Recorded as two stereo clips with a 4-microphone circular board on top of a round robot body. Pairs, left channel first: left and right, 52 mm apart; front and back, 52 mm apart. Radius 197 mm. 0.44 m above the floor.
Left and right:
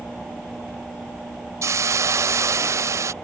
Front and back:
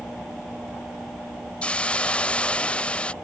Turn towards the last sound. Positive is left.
turn(degrees=-70)